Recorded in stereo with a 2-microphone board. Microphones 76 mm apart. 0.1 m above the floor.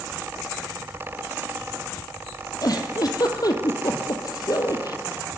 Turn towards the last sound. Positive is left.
turn(degrees=55)  # may be behind; listen again after turning